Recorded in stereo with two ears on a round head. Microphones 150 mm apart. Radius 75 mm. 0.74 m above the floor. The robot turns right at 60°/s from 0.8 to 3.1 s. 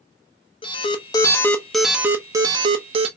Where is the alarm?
120° left, 0.8 m; by 3.1 s 100° right, 0.8 m.